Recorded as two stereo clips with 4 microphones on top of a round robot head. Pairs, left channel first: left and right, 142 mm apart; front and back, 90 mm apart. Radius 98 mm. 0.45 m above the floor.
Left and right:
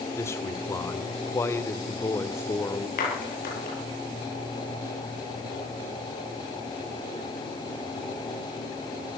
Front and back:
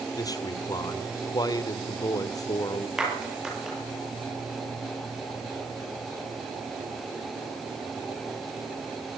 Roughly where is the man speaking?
Ahead left.